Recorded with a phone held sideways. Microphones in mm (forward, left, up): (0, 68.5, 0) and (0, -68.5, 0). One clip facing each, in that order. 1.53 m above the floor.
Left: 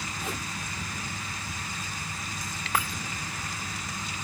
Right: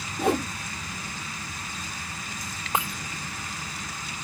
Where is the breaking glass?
25° right (ahead or behind).